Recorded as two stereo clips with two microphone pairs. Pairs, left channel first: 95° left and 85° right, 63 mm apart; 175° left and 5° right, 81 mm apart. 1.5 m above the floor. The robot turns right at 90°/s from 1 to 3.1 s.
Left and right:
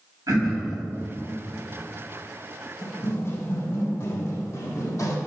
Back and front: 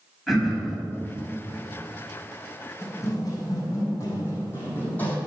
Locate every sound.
0.3 s throat clearing: 95° right, 4.5 m
2.8 s running footsteps: 110° left, 3.5 m; by 5.2 s 105° left, 3 m